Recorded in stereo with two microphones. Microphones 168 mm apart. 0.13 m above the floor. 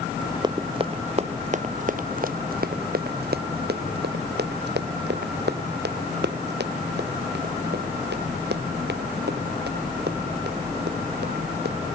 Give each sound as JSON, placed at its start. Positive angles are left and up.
{"t": 0.4, "sound": "running footsteps", "side_deg": -25}